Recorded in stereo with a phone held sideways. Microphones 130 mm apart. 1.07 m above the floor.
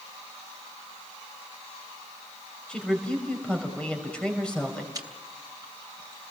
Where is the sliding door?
I don't hear a sliding door.